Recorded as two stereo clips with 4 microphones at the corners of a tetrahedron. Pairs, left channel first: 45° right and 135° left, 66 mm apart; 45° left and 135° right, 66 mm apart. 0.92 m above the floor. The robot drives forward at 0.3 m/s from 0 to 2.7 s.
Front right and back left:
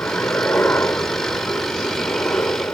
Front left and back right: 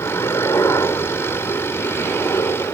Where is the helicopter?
15° left; by 2.7 s 10° left.